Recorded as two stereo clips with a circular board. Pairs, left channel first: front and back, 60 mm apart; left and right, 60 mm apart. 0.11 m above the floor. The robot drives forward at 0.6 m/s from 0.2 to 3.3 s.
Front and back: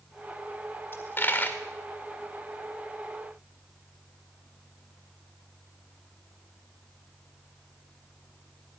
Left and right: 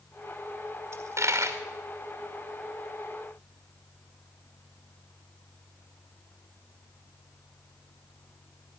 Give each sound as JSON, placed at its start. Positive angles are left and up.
{"t": 0.9, "sound": "a dropped coin", "azimuth_deg": -50, "distance_m": 1.8}